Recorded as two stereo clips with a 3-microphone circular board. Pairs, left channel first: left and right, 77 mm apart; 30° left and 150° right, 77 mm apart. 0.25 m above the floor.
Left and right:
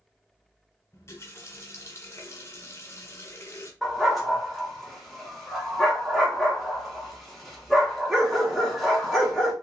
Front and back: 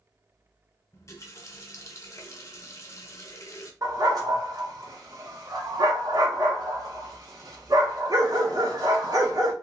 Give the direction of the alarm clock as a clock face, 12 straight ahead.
I don't hear an alarm clock.